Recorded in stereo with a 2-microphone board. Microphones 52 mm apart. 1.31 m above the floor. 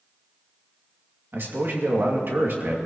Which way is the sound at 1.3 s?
45° right (ahead or behind).